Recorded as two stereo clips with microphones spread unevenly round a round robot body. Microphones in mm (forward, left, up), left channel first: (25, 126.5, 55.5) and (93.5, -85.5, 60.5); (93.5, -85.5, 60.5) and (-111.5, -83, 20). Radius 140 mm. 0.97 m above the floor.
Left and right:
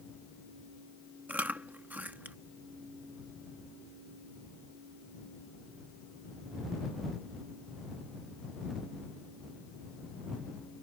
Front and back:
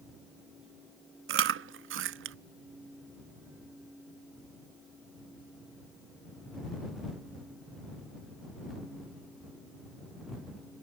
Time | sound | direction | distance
1.3 | chewing | 155° right | ?